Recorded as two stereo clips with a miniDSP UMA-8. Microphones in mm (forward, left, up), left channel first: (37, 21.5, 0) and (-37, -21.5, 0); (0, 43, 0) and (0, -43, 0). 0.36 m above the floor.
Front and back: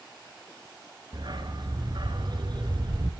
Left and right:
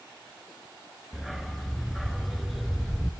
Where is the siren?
No siren in this recording.